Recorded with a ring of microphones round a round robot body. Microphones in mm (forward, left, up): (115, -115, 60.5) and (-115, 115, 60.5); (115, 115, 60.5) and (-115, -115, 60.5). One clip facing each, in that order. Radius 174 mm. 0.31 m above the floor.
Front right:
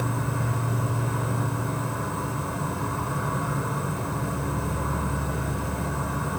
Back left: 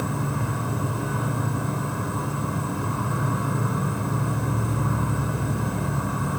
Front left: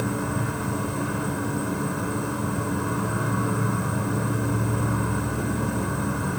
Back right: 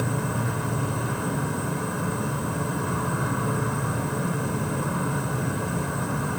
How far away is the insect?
About 1.5 m.